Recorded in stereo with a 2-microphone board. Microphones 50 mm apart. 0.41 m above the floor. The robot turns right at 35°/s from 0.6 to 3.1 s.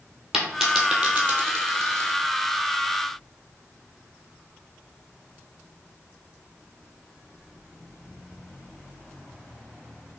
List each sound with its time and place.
0.3 s a dropped coin: 10° right (ahead or behind), 1.0 m; by 2.1 s 60° right (ahead or behind), 1.0 m